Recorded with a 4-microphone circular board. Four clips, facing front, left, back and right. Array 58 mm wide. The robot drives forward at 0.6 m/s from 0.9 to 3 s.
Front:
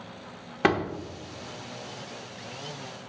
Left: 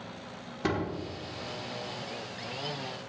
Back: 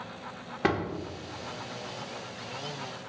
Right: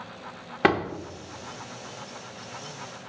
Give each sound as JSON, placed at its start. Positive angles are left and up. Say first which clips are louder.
{"t": 0.6, "sound": "a door slam", "louder": "right 8 dB, front 4 dB", "azimuth_deg": -70, "distance_m": 1.2}